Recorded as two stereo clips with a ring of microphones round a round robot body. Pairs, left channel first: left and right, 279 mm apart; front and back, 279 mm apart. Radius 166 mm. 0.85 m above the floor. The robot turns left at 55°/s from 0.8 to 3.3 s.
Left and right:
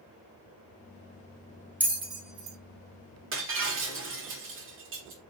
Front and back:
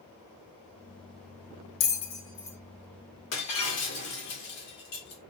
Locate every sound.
1.8 s a bell: 5° right, 1.7 m; by 2.6 s 45° right, 1.7 m
3.3 s breaking glass: 45° right, 1.7 m